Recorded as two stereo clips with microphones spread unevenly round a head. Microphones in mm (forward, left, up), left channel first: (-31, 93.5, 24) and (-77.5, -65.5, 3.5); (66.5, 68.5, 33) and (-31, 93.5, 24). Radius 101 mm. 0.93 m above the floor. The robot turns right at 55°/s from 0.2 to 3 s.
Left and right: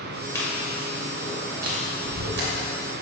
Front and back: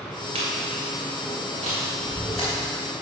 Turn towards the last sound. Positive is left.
turn(degrees=-65)